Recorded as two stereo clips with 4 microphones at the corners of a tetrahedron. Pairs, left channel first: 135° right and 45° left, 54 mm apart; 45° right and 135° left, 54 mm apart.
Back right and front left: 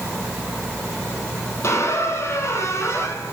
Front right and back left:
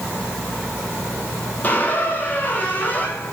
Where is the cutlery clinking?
No cutlery clinking in this recording.